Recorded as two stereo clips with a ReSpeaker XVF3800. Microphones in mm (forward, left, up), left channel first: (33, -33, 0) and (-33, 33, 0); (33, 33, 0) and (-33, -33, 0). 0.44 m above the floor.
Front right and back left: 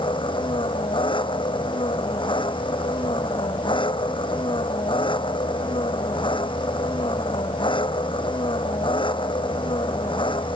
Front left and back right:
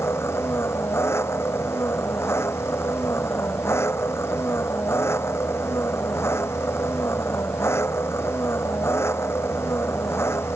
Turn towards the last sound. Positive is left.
turn(degrees=-20)